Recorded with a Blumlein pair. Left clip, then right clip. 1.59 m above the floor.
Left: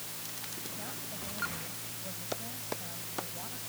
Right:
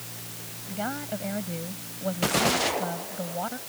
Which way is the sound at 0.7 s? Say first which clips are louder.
Right 10 dB; 55° right.